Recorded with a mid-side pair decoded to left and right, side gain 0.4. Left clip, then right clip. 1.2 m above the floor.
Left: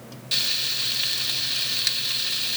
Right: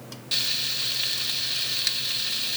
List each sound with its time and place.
0.3 s frying: 10° left, 1.1 m